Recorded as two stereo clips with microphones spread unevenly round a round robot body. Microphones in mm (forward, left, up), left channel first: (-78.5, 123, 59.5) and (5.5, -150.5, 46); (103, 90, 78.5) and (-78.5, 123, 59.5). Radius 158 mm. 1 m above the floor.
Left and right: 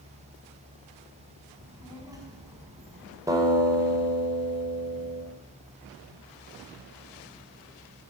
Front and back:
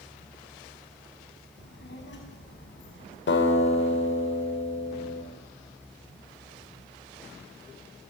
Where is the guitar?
5° left, 4.5 m.